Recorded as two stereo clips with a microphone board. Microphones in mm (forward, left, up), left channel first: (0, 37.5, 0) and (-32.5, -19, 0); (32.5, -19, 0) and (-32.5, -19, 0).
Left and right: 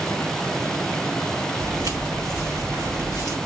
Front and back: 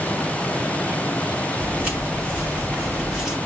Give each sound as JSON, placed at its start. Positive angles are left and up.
{"t": 1.6, "sound": "footsteps", "azimuth_deg": -115, "distance_m": 3.5}